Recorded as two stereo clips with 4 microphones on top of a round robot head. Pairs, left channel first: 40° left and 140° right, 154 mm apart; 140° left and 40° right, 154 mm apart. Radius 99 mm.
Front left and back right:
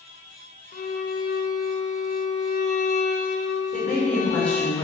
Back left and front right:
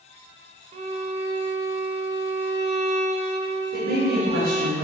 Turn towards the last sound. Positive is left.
turn(degrees=-40)